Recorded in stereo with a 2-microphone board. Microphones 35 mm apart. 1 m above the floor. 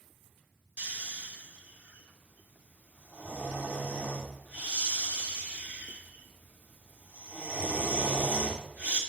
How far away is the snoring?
About 3 m.